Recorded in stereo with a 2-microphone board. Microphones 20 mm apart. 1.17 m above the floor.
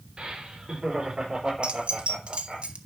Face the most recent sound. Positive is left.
turn(degrees=-60)  # may be behind; listen again after turning